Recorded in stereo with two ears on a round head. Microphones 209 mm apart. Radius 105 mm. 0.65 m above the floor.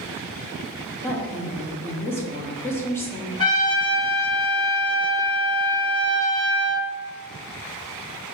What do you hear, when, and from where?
1.0 s a woman speaking: 10° left (ahead or behind), 0.7 m
3.4 s a trumpet: 20° left (ahead or behind), 1.8 m